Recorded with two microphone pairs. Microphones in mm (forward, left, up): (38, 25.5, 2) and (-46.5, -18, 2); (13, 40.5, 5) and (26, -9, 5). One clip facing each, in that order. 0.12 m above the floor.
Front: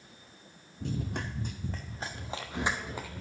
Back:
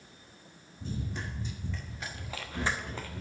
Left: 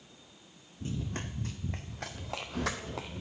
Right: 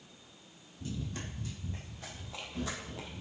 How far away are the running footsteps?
About 1.9 m.